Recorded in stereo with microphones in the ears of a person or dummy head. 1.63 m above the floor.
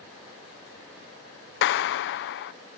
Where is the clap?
55° left (ahead or behind).